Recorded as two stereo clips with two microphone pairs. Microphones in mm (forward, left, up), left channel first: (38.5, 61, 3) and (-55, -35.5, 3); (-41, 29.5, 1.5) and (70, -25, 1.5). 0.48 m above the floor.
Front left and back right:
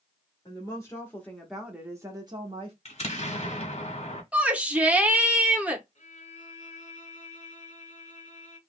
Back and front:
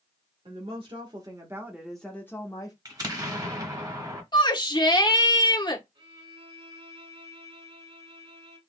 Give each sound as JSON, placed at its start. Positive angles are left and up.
{"t": 0.5, "sound": "a woman speaking", "azimuth_deg": -10, "distance_m": 1.3}
{"t": 2.9, "sound": "an explosion", "azimuth_deg": 25, "distance_m": 1.2}
{"t": 4.3, "sound": "a shout", "azimuth_deg": 150, "distance_m": 0.9}
{"t": 6.0, "sound": "a violin", "azimuth_deg": 15, "distance_m": 1.7}